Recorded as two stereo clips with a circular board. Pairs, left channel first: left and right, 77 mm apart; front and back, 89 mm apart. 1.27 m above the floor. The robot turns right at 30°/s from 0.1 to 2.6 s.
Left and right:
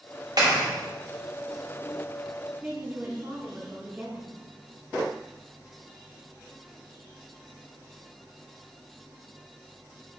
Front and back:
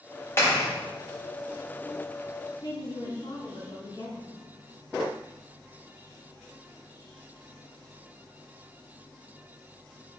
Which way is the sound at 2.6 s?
25° right.